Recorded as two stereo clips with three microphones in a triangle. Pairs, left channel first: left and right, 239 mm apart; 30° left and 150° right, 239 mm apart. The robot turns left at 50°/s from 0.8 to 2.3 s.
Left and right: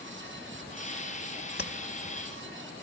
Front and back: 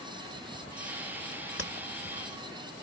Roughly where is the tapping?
Ahead left.